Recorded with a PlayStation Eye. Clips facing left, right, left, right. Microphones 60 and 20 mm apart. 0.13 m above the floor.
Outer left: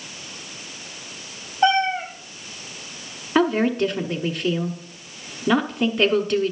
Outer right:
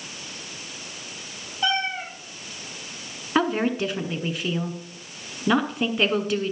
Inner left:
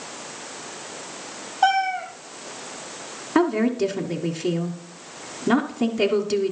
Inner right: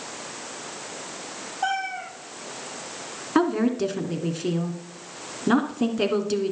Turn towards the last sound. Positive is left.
turn(degrees=-5)  # may be behind; listen again after turning